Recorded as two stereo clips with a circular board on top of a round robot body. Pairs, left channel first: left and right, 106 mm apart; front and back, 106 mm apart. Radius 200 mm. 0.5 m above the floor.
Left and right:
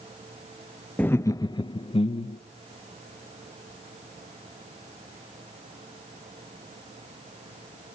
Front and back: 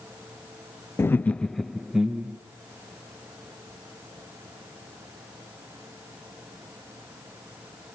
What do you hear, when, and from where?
1.0 s laughter: 30° left, 0.7 m; by 2.4 s 105° left, 1.1 m